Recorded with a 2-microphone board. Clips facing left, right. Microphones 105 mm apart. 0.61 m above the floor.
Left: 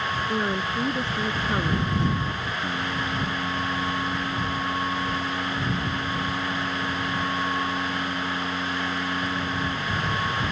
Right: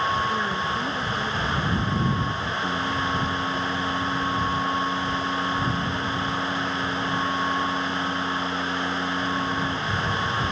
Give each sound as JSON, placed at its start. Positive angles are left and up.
{"t": 0.3, "sound": "a woman speaking", "side_deg": 30}
{"t": 2.6, "sound": "singing", "side_deg": -5}